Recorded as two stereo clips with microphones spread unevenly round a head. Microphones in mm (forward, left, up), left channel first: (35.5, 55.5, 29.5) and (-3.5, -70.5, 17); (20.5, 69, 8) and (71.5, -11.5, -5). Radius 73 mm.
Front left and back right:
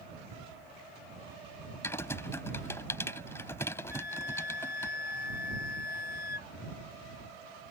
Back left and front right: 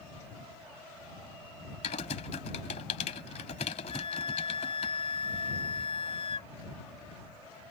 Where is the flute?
100° left.